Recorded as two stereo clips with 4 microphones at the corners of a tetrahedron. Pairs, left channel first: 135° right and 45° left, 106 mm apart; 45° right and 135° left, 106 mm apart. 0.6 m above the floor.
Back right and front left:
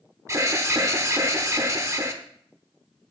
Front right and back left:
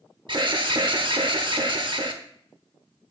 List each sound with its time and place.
0.3 s an alarm: 100° left, 0.9 m